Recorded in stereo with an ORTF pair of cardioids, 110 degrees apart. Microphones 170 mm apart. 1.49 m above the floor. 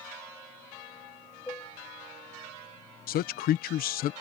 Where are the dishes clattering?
15° left.